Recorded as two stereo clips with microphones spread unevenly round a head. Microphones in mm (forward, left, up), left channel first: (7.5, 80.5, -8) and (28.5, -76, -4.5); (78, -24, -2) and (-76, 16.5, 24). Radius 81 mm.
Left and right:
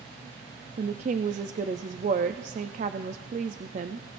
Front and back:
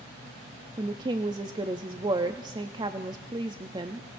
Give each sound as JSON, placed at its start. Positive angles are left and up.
{"t": 0.8, "sound": "a woman speaking", "azimuth_deg": -130, "distance_m": 0.5}